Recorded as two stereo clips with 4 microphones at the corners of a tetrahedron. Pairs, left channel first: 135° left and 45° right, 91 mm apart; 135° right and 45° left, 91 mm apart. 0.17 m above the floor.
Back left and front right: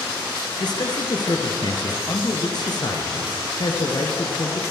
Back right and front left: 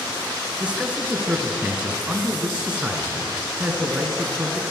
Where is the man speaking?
120° left, 3 m.